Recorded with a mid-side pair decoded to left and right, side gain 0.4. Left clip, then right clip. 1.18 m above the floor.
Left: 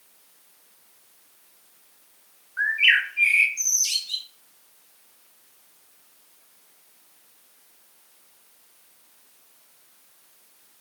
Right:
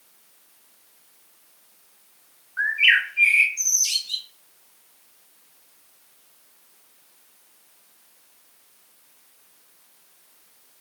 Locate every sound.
2.6 s a bird: 5° right, 0.8 m